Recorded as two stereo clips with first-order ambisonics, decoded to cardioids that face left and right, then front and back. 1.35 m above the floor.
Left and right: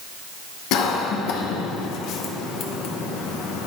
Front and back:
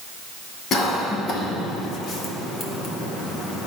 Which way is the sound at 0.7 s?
60° left.